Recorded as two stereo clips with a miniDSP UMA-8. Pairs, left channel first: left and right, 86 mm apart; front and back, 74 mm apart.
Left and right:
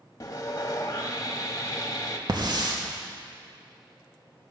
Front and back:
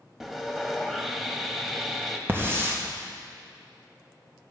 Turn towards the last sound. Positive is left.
turn(degrees=-120)